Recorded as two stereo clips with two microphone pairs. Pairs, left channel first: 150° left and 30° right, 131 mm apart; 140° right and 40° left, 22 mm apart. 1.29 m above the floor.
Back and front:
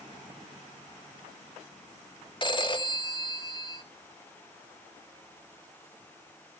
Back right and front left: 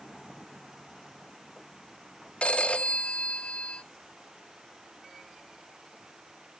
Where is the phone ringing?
155° right, 2.0 m.